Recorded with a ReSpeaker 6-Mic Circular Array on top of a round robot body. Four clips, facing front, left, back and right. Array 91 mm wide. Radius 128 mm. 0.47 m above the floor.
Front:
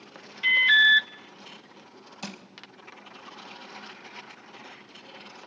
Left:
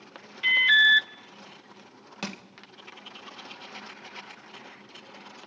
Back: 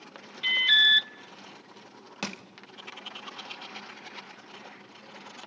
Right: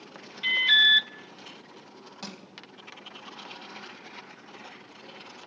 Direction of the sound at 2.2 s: 150° left.